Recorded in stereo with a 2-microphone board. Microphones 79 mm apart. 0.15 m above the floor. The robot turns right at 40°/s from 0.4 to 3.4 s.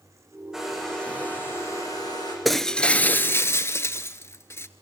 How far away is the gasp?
I don't hear a gasp.